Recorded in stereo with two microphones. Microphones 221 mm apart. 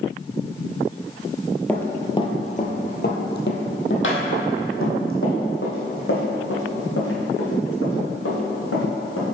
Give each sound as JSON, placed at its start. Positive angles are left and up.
{"t": 1.7, "sound": "running footsteps", "side_deg": 5, "distance_m": 0.9}